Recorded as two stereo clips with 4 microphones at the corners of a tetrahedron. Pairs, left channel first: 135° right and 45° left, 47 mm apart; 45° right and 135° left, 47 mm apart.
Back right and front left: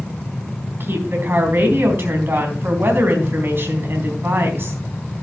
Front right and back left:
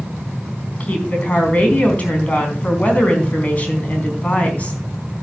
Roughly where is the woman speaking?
Ahead.